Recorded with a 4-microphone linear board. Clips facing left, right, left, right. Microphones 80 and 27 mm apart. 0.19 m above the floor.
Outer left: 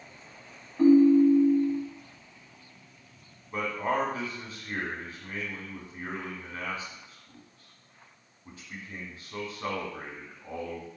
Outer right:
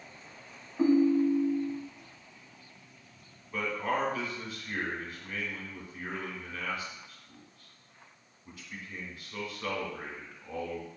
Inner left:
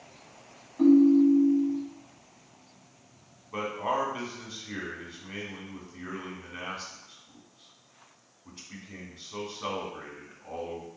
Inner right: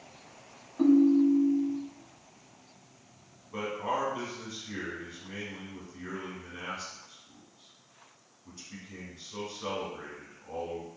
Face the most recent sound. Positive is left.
turn(degrees=35)  # may be behind; listen again after turning